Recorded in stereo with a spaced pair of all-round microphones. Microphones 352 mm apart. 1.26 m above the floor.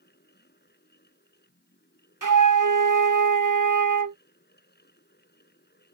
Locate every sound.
0.0 s a fan: 30° left (ahead or behind)
2.2 s a flute: 60° right (ahead or behind)